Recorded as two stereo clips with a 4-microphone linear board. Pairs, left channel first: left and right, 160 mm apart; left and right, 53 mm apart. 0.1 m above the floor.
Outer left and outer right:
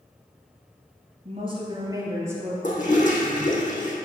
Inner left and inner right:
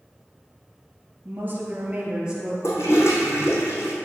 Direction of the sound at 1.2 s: 40° right (ahead or behind).